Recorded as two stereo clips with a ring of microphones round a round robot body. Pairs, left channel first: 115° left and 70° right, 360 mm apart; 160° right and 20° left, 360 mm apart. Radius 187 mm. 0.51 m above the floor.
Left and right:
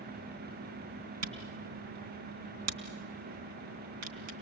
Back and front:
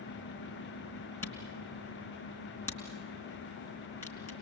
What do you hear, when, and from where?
1.2 s a camera shutter: 75° right, 3.5 m